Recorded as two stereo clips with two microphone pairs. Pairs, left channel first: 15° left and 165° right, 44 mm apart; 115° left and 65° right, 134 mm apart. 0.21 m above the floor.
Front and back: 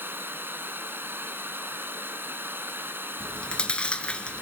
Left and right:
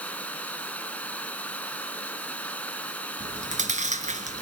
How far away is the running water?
About 2 m.